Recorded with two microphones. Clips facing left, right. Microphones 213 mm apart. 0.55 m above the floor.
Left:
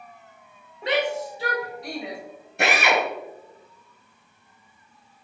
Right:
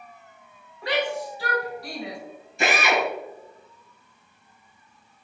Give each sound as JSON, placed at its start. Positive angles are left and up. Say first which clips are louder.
{"t": 0.8, "sound": "a shout", "louder": "left 2 dB", "side_deg": 20, "distance_m": 2.5}
{"t": 2.6, "sound": "a drill", "louder": "left 1 dB", "side_deg": 65, "distance_m": 1.7}